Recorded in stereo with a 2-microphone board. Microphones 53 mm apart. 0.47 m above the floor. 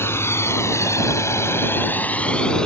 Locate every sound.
0.0 s a drone: 50° left (ahead or behind); by 2.7 s 15° left (ahead or behind)